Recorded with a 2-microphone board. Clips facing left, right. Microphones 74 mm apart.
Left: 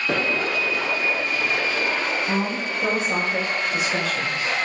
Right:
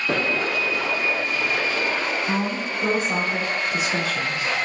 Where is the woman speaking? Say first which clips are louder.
Even; 20° right (ahead or behind), 1.2 m.